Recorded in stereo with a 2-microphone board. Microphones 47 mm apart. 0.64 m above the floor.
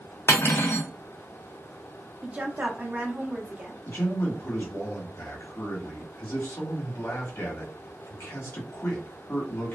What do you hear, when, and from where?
0.3 s cutlery clinking: 60° left (ahead or behind), 0.6 m
2.2 s a woman speaking: 30° right (ahead or behind), 0.7 m
3.9 s a man speaking: 60° left (ahead or behind), 1.2 m